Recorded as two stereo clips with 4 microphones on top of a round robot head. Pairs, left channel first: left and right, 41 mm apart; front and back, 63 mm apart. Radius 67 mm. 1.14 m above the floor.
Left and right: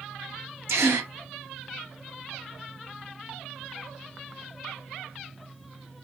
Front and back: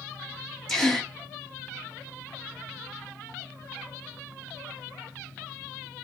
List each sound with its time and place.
0.7 s a gasp: 80° right, 0.5 m